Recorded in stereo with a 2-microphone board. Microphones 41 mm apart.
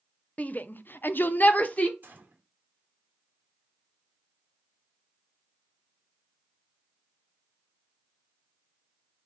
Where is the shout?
35° left (ahead or behind), 0.6 m.